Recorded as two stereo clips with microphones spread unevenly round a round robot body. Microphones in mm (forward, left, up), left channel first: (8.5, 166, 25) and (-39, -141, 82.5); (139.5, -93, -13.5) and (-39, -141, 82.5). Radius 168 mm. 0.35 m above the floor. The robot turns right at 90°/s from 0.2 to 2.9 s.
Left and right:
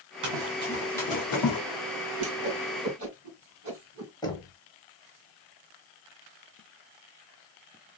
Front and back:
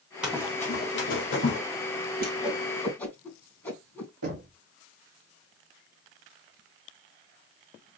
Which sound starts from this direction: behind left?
Knocking, at 4.2 s.